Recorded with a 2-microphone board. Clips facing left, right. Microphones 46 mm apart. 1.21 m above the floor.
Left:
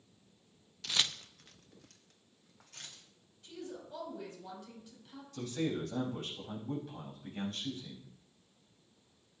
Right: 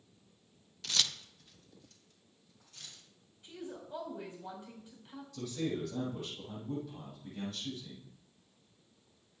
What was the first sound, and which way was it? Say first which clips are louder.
Keys jangling: left 1 dB; centre (ahead or behind).